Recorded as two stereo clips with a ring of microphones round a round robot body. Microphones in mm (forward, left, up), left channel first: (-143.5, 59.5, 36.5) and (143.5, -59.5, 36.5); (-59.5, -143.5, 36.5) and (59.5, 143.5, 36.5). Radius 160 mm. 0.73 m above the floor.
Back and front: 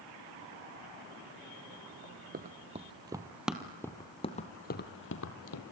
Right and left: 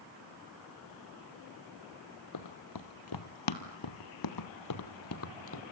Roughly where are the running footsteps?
Right.